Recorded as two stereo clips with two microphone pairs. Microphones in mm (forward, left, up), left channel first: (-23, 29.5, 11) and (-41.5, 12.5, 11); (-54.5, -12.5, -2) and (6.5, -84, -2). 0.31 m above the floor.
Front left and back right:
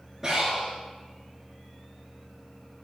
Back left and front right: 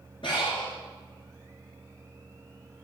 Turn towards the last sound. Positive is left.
turn(degrees=150)